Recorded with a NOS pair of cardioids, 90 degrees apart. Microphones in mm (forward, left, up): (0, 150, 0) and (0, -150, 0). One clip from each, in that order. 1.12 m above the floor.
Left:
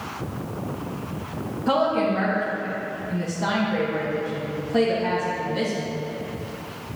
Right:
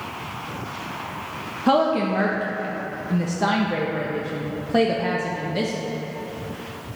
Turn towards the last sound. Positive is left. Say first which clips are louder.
# right 2 dB
turn(degrees=-35)